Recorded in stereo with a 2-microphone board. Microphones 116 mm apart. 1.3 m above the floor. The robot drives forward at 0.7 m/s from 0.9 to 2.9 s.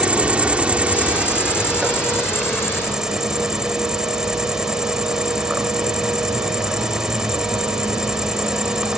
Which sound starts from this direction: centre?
An insect, at 0.0 s.